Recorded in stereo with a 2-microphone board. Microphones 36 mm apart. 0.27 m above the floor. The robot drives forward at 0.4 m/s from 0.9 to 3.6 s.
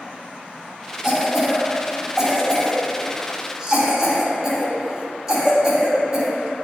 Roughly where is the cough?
Centre.